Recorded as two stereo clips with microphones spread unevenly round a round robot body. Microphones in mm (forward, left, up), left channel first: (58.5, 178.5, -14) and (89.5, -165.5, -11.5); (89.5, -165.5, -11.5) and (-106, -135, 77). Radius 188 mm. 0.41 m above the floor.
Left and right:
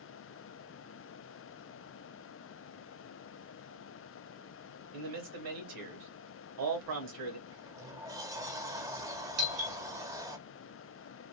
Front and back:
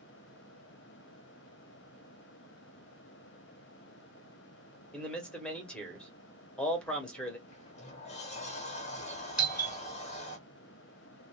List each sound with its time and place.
4.9 s a man speaking: 80° right, 1.7 m
7.5 s a sliding door: 5° right, 0.9 m
9.4 s a doorbell: 80° right, 2.5 m